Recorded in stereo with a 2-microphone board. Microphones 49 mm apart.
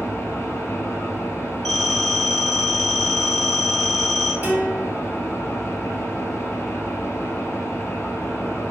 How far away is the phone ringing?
About 1.2 m.